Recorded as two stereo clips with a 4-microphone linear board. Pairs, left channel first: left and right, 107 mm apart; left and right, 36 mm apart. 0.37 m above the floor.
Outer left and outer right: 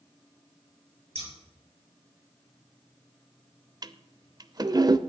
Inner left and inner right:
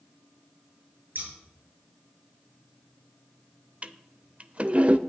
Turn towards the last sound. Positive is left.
turn(degrees=-40)  # may be behind; listen again after turning